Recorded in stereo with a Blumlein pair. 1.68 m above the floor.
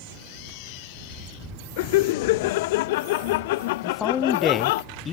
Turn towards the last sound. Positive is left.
turn(degrees=20)